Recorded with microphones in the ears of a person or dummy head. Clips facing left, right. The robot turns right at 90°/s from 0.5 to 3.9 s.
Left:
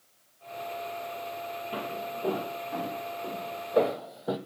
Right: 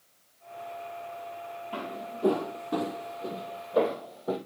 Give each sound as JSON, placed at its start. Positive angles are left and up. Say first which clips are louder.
{"t": 1.7, "sound": "footsteps", "louder": "left 1 dB", "side_deg": 15, "distance_m": 2.5}